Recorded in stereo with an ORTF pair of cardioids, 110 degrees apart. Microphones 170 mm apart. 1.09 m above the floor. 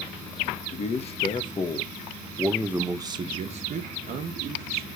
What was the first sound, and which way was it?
A man speaking, 45° left.